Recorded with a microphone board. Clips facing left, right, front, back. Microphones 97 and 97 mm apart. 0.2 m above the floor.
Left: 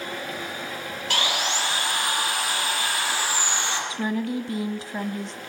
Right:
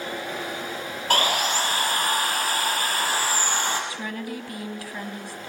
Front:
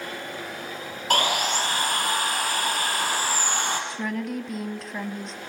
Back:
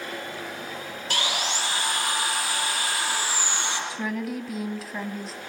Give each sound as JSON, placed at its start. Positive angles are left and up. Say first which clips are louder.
{"t": 1.1, "sound": "sawing", "louder": "right 4 dB, front 6 dB", "azimuth_deg": -45, "distance_m": 5.0}
{"t": 3.9, "sound": "a woman speaking", "louder": "left 6 dB, even", "azimuth_deg": 100, "distance_m": 1.4}